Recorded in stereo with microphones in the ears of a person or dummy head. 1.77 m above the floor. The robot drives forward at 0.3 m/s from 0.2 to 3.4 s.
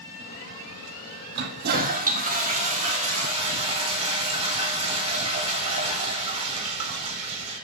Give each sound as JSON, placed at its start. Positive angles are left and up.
{"t": 1.4, "sound": "a toilet flushing", "side_deg": -50, "distance_m": 0.7}